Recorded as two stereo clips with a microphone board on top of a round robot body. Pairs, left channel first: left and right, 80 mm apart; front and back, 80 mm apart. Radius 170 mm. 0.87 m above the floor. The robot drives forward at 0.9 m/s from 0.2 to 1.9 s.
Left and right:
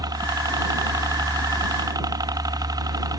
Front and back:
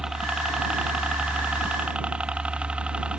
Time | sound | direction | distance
0.0 | a helicopter | 100° right | ?